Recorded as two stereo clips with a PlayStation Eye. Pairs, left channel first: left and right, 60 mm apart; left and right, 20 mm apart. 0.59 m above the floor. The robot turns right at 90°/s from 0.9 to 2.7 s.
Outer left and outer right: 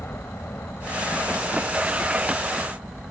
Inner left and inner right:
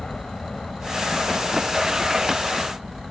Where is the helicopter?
45° left (ahead or behind); by 3.1 s 30° right (ahead or behind).